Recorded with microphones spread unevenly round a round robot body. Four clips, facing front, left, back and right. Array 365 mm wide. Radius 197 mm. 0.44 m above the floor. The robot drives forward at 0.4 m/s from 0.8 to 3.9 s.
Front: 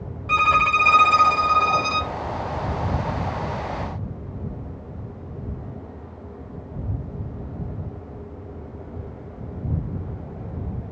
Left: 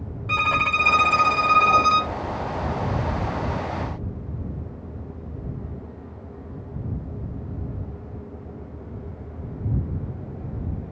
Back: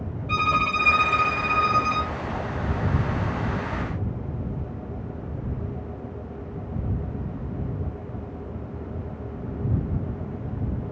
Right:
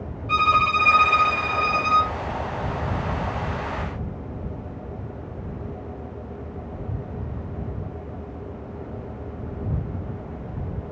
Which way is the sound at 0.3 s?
50° left.